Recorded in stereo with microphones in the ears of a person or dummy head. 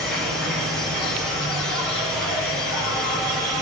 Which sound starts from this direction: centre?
An insect, at 0.0 s.